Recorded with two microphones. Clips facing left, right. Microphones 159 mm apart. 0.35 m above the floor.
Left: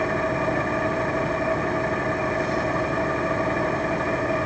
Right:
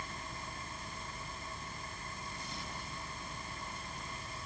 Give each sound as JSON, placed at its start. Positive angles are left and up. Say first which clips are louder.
{"t": 0.0, "sound": "an engine running", "louder": "left 24 dB", "side_deg": 85}